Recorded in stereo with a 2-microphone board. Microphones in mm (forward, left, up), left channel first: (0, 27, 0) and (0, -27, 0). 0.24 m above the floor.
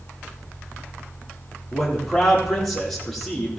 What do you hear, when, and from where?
1.7 s a man speaking: 5° left (ahead or behind), 7.5 m